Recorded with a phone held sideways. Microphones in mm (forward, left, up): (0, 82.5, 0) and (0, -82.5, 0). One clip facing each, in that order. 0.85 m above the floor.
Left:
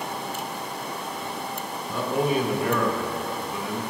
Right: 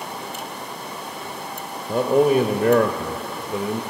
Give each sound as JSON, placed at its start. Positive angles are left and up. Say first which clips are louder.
{"t": 1.9, "sound": "a man speaking", "louder": "right 8 dB", "side_deg": -45, "distance_m": 0.6}